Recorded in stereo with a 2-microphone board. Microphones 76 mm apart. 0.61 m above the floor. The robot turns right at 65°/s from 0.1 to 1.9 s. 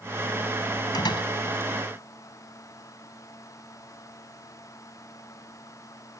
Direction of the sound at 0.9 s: 60° left (ahead or behind).